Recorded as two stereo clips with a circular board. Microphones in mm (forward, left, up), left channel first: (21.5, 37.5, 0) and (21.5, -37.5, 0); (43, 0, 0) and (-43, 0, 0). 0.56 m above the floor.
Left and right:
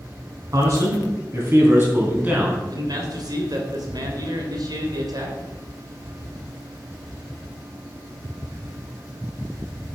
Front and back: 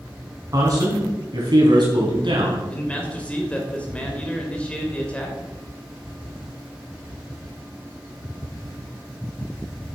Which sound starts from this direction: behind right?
A man speaking, at 0.5 s.